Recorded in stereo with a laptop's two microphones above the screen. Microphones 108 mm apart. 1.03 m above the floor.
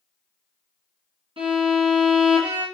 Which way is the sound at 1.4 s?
65° right (ahead or behind).